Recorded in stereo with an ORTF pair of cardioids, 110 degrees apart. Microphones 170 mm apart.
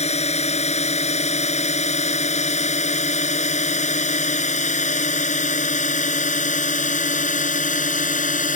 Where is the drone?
40° left; by 8.6 s 50° left.